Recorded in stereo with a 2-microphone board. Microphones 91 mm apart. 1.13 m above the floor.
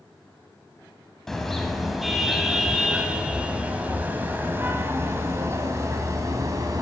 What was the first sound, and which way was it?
A car horn, 5° left (ahead or behind).